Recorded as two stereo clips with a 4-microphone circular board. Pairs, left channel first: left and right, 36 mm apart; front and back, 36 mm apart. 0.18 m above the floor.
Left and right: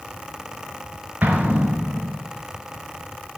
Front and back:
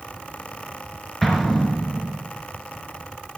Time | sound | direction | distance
1.2 | an explosion | 85° right | 2 m